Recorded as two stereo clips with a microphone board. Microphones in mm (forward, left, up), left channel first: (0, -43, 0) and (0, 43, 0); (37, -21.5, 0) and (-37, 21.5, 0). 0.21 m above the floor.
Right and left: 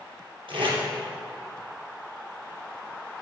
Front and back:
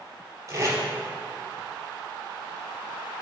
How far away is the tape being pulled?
About 3 m.